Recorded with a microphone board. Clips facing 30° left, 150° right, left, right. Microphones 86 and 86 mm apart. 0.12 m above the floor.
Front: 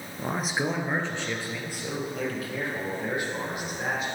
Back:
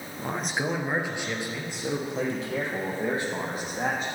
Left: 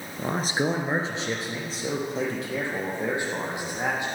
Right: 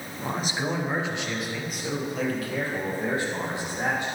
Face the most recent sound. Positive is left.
turn(degrees=160)